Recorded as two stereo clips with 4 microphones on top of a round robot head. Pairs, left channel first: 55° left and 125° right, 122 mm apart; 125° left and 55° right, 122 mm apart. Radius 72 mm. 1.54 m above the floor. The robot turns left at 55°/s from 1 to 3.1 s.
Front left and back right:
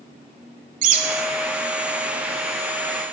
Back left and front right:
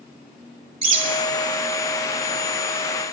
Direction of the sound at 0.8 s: 100° right.